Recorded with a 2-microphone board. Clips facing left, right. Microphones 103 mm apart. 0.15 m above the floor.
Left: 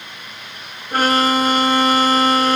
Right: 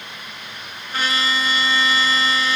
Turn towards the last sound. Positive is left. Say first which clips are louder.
# left 8 dB
turn(degrees=50)  # may be behind; listen again after turning